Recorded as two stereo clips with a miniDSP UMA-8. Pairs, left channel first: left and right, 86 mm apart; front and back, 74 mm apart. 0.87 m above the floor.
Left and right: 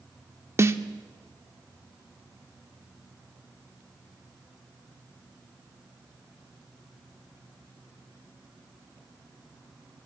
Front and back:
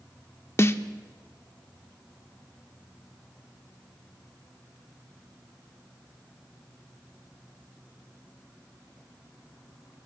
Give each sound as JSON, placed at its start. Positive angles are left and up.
{"t": 0.6, "sound": "a snare drum", "azimuth_deg": -40, "distance_m": 0.6}